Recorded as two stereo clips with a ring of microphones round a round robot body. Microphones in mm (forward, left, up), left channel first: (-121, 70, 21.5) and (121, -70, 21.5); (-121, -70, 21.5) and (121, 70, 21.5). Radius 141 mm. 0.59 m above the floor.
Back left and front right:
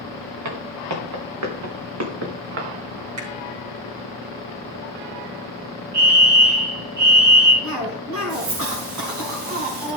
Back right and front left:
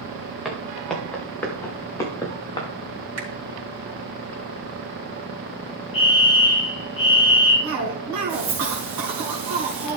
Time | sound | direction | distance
0.5 | footsteps | 60° right | 3.5 m
3.2 | a finger snap | 5° right | 5.5 m
5.9 | a fire alarm | 80° right | 4 m
7.6 | a cough | straight ahead | 4.5 m